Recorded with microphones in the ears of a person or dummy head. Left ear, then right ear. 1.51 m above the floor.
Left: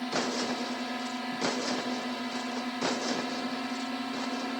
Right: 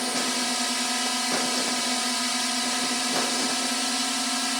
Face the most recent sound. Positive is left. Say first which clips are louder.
# right 5 dB
turn(degrees=-70)  # may be behind; listen again after turning